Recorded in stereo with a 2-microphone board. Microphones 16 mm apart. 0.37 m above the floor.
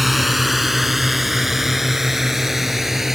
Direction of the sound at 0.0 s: 5° right (ahead or behind).